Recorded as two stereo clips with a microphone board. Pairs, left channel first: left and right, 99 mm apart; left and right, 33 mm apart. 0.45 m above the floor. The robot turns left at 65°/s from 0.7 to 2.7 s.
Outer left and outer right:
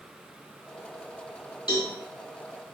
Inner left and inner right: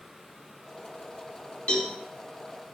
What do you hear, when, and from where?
1.7 s a cowbell: 50° left (ahead or behind), 3 m; by 1.9 s 65° left (ahead or behind), 3 m